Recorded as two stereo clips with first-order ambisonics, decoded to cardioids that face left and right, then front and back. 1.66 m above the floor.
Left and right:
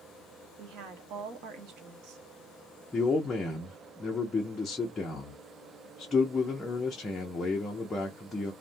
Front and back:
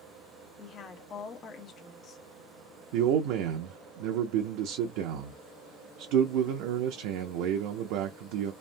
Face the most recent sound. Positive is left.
turn(degrees=165)